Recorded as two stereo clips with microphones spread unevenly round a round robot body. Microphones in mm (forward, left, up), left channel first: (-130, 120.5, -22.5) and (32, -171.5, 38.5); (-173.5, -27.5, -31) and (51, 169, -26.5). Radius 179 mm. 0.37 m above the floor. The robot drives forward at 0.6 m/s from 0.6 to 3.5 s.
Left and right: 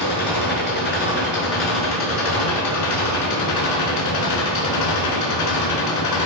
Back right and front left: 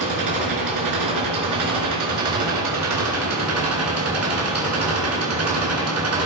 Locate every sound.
0.0 s an engine running: 55° left, 4.5 m; by 6.3 s 80° left, 4 m